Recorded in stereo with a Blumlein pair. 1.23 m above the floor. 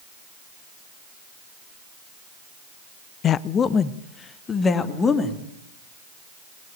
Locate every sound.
3.2 s a woman speaking: 30° left, 0.6 m; by 5.4 s 15° left, 2.5 m